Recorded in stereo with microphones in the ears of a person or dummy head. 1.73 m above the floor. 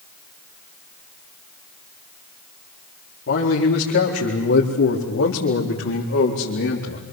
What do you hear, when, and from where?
3.3 s a man speaking: 70° left (ahead or behind), 5 m